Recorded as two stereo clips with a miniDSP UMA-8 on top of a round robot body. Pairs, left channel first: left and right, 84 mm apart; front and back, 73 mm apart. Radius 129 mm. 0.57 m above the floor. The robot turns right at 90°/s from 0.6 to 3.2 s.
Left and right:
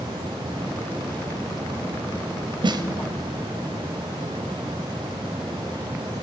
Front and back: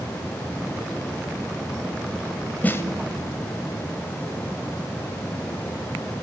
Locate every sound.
2.6 s a snare drum: 70° right, 0.8 m; by 2.8 s 50° right, 0.8 m